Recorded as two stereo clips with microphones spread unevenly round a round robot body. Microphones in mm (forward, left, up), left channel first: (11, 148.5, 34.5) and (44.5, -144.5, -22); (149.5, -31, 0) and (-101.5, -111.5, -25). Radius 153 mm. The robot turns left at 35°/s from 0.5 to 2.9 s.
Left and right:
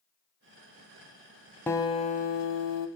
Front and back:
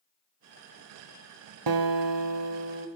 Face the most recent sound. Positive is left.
turn(degrees=135)